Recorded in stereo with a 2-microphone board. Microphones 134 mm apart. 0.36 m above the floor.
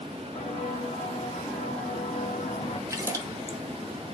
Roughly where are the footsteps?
Left.